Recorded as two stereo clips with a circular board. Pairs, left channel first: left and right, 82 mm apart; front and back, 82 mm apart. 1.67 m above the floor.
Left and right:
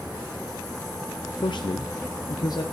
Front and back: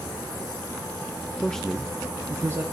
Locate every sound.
1.4 s a man speaking: 75° left, 0.6 m; by 2.6 s 125° left, 0.9 m